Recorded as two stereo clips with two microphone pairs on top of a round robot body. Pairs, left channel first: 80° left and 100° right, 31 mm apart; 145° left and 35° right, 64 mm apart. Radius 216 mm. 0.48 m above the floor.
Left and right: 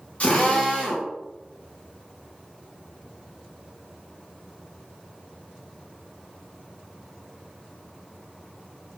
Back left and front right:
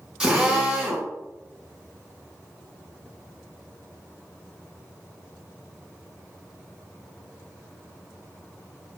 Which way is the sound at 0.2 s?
35° left.